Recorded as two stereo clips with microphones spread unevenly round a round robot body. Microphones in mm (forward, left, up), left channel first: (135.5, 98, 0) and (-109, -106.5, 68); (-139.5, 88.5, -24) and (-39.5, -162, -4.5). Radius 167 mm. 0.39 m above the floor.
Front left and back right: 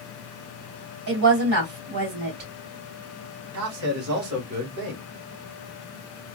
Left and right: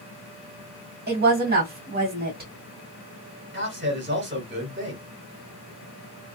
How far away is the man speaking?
About 1.6 m.